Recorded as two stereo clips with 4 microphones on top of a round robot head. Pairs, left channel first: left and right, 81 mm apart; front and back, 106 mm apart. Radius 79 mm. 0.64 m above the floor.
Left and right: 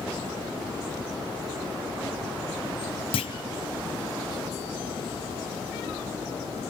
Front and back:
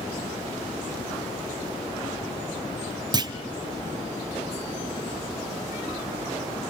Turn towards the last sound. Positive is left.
turn(degrees=130)